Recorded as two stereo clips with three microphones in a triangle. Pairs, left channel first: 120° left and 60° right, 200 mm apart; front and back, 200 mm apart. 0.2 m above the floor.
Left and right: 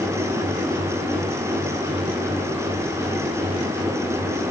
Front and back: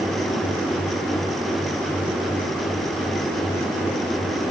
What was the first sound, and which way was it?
Only background noise.